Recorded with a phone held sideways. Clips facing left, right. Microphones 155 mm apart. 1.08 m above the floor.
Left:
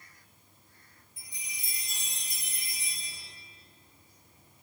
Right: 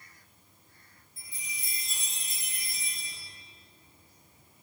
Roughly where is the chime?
Centre.